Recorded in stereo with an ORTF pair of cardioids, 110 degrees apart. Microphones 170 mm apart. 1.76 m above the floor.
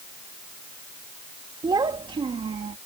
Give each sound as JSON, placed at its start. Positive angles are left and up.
{"t": 1.6, "sound": "a child speaking", "azimuth_deg": -25}